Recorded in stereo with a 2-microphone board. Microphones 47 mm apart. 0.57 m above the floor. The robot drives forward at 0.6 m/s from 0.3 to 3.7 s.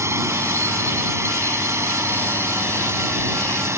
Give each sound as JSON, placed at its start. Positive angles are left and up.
{"t": 0.0, "sound": "a drone", "side_deg": -75}